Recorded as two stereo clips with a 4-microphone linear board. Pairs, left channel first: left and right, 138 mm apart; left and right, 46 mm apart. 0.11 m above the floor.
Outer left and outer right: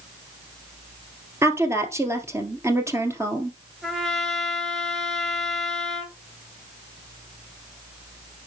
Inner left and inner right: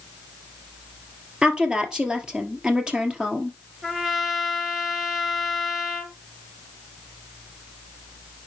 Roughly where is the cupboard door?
No cupboard door in this recording.